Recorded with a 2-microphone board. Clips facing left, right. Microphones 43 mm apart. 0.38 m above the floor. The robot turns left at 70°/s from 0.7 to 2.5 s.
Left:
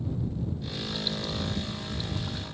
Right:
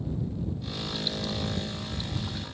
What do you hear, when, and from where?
Only background noise.